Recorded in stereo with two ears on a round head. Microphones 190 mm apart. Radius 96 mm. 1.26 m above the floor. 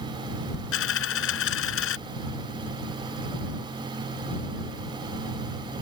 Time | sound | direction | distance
0.7 | a dropped coin | 70° left (ahead or behind) | ?